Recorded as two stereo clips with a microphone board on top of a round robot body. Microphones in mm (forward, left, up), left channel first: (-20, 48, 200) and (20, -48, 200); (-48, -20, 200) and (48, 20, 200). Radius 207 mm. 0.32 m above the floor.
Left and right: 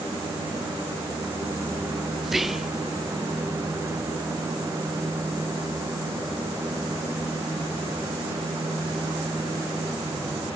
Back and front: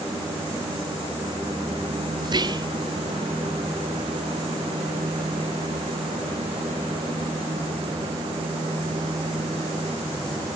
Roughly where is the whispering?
Ahead.